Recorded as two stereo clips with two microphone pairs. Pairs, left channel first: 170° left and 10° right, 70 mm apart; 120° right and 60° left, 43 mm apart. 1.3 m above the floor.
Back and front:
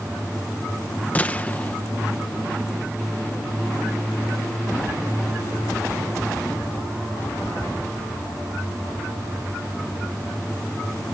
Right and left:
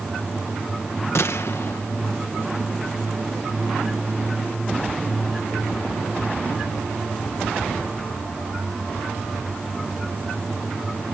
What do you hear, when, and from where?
1.1 s a gunshot: 125° right